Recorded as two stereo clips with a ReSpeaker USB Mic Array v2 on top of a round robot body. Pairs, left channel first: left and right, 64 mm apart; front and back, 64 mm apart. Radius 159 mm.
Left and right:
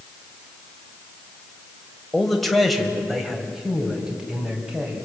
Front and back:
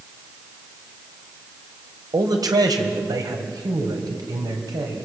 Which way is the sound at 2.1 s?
175° left.